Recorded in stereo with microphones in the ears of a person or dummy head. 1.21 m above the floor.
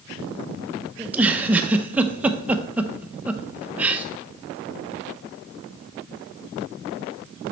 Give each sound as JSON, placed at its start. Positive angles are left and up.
{"t": 1.0, "sound": "a giggle", "side_deg": -10, "distance_m": 0.5}